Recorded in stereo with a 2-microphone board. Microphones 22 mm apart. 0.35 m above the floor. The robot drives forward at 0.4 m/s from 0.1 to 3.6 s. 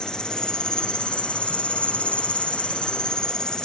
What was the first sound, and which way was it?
An insect, 40° left (ahead or behind).